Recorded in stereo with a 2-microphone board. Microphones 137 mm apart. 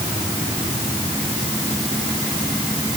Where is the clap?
No clap in this recording.